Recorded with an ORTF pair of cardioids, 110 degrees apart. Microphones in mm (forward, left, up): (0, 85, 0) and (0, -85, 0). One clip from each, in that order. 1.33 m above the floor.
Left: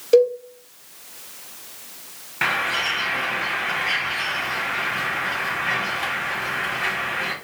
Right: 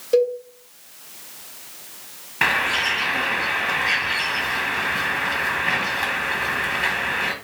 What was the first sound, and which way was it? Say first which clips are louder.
A cowbell: left 3 dB; 30° left.